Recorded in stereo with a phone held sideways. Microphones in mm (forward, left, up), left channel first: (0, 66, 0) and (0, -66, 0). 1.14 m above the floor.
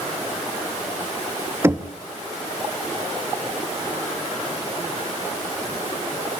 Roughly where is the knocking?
Centre.